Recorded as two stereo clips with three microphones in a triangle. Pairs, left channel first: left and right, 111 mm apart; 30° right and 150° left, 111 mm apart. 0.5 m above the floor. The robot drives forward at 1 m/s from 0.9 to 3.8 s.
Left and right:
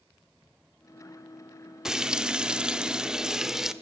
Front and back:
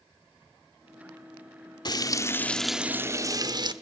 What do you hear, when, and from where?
1.9 s frying: 10° right, 1.1 m; by 3.7 s 175° right, 1.3 m